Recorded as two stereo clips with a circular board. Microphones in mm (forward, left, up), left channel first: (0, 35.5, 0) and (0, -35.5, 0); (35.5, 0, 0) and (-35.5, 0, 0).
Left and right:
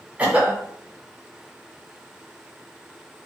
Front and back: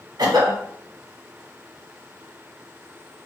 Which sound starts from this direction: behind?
A cough, at 0.2 s.